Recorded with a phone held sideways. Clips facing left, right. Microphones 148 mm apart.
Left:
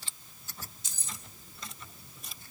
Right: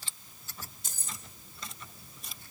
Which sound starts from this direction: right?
Keys jangling, at 0.8 s.